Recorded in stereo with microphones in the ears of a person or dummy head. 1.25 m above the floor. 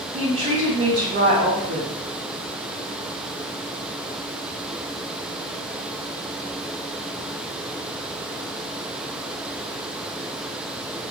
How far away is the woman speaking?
About 1.0 m.